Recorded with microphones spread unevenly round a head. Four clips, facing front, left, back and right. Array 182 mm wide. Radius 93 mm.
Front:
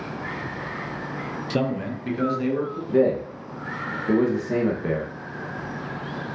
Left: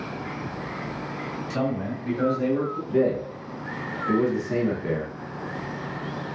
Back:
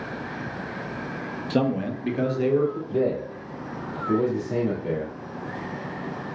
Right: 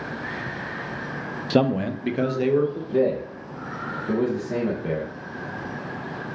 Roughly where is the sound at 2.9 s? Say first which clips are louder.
Left 2 dB, front 4 dB; ahead.